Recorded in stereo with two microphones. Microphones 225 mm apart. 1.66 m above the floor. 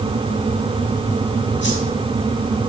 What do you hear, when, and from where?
1.6 s a whoosh: 55° left (ahead or behind), 5 m